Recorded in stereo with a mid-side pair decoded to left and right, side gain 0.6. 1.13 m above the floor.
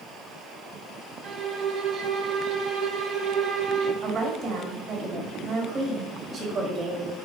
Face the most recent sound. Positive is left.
turn(degrees=-30)